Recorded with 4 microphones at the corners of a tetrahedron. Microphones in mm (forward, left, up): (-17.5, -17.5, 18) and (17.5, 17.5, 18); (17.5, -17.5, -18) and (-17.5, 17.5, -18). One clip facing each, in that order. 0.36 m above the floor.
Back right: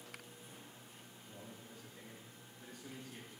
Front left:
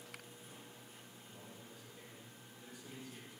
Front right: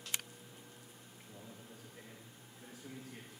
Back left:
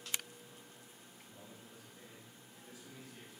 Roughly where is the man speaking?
Right.